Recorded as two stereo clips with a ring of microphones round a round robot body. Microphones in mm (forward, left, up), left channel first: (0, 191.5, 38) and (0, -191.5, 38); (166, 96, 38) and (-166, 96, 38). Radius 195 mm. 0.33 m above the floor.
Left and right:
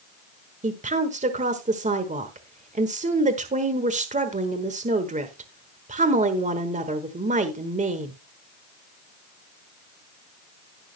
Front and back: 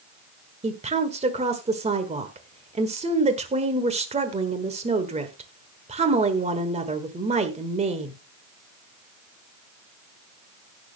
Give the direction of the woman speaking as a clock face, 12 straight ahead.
5 o'clock.